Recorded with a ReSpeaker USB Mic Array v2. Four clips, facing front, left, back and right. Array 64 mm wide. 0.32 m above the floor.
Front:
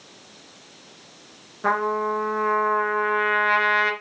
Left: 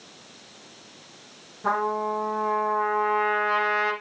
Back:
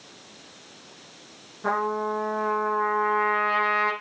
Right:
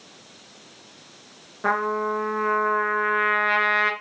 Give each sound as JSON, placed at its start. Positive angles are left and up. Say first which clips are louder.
{"t": 1.6, "sound": "a trumpet", "louder": "right 2 dB, front 3 dB", "azimuth_deg": -60, "distance_m": 2.5}